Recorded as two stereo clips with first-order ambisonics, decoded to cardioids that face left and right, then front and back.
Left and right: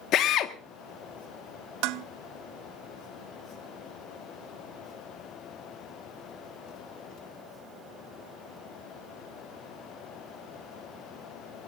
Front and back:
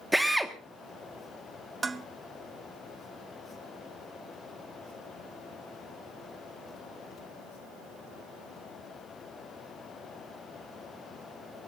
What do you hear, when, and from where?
0.1 s a drill: 95° left, 1.2 m
1.8 s dishes clattering: 105° right, 0.7 m